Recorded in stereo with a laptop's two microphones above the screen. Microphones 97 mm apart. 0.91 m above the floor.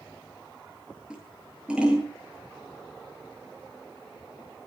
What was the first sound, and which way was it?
Scissors, 10° right (ahead or behind).